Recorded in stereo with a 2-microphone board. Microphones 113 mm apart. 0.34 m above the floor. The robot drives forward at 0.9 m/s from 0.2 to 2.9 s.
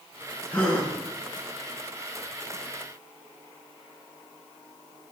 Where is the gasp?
10° left (ahead or behind), 0.8 m.